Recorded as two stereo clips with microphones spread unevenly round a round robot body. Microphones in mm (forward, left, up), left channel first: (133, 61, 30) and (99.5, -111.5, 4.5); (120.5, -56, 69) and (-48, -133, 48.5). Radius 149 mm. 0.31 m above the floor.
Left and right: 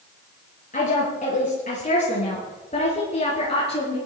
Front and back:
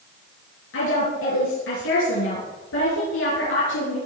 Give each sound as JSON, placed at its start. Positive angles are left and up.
{"t": 0.7, "sound": "a woman speaking", "azimuth_deg": 35, "distance_m": 6.0}